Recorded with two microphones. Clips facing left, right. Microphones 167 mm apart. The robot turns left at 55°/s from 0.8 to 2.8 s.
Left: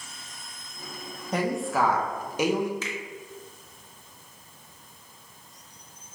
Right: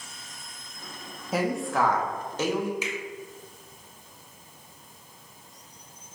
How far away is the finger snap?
About 0.9 m.